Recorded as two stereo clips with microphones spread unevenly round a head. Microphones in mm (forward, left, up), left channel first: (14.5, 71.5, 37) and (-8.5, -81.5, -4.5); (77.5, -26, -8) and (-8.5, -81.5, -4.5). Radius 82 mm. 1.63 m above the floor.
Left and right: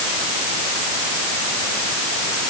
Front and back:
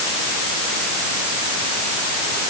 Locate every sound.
Only background noise.